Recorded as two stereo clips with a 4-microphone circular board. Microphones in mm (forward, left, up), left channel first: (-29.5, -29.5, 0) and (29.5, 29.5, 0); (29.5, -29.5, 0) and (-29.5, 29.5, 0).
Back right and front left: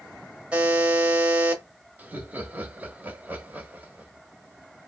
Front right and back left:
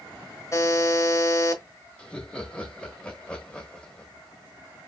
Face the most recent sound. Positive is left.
turn(degrees=15)